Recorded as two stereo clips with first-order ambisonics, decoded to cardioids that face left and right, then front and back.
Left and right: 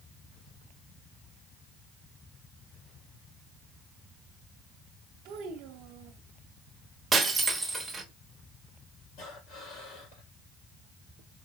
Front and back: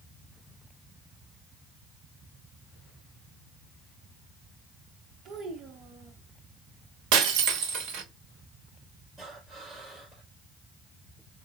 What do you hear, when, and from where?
5.2 s a child speaking: 120° right, 0.9 m
7.1 s breaking glass: 170° right, 1.0 m
9.2 s breathing: 120° left, 3.5 m